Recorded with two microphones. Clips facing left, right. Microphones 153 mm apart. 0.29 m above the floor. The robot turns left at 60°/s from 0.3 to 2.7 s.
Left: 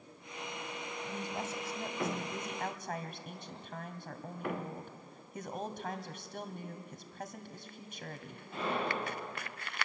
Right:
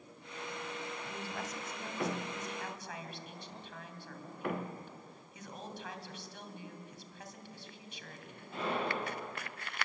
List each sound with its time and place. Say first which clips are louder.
1.1 s a woman speaking: left 3 dB; 170° left, 2 m; by 8.5 s 70° left, 2 m